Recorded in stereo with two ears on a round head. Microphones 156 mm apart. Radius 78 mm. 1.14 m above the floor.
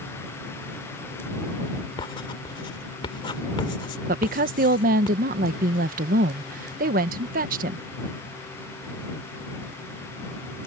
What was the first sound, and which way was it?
Writing, 30° left (ahead or behind).